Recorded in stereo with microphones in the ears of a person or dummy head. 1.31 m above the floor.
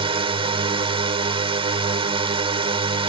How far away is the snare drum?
I don't hear a snare drum.